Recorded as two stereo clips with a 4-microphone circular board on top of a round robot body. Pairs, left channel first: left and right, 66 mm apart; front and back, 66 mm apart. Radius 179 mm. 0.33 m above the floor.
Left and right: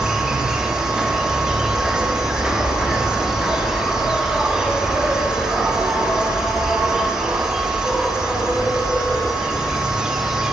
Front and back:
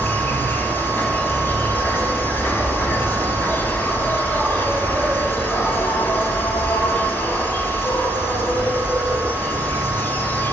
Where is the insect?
15° right, 1.1 m.